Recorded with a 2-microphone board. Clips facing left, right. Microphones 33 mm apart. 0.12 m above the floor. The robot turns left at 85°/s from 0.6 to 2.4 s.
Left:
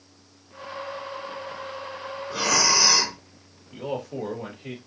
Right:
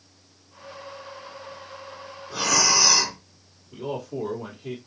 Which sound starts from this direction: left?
A man speaking, at 3.7 s.